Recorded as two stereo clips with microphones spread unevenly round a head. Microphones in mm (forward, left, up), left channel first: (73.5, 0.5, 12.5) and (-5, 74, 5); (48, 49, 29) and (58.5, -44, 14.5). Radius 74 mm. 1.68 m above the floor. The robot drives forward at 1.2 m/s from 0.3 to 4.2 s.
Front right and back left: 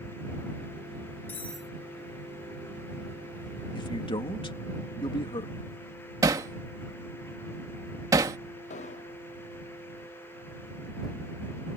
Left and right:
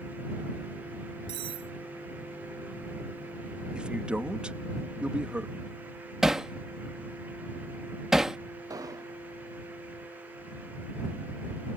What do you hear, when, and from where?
1.3 s cutlery clinking: 100° right; by 1.7 s 135° right
3.7 s a man speaking: 5° right
6.2 s hammering: 175° left
8.7 s an explosion: 35° right